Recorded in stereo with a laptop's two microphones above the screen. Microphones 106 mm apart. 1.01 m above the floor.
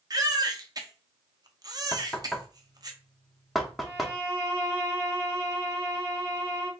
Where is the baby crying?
40° right (ahead or behind), 0.6 m.